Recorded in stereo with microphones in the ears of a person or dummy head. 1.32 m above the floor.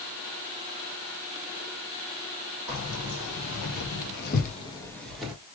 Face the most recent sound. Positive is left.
turn(degrees=-10)  # may be behind; listen again after turning